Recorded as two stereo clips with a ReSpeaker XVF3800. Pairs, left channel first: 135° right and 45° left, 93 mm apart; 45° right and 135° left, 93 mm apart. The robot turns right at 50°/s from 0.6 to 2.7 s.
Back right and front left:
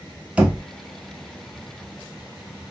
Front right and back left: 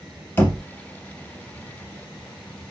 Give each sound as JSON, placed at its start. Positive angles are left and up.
{"t": 0.4, "sound": "knocking", "azimuth_deg": -15, "distance_m": 0.8}